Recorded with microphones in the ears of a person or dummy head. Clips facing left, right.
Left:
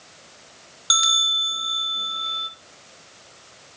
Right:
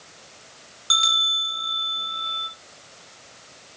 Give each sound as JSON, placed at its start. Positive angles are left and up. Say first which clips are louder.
{"t": 0.9, "sound": "a bell", "louder": "even", "side_deg": 15, "distance_m": 1.0}